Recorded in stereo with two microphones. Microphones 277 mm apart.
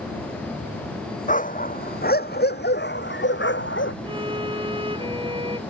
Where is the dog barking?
30° left (ahead or behind); by 3.9 s 45° left (ahead or behind).